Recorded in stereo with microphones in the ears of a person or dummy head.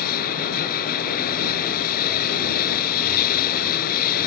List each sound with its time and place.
0.0 s running water: 55° left (ahead or behind)